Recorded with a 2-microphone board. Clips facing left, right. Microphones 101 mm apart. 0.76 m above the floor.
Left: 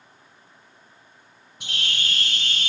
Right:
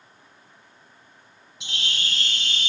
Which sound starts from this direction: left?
A bird, at 1.6 s.